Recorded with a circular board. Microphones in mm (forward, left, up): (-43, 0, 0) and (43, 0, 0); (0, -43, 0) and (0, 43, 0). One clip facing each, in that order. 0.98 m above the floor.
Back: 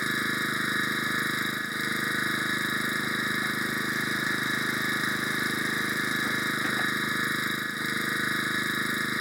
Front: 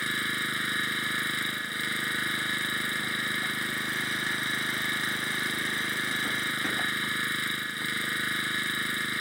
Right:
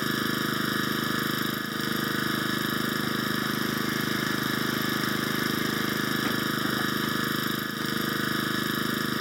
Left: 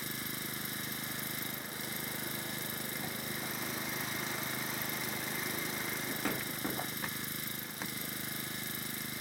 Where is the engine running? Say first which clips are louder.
Back 3 dB, right 15 dB; 110° right.